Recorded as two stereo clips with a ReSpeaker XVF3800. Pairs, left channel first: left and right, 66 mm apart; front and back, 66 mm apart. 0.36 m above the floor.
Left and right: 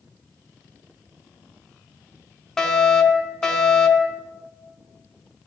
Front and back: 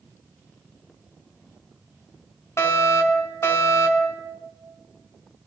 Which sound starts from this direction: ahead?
A fire alarm, at 2.6 s.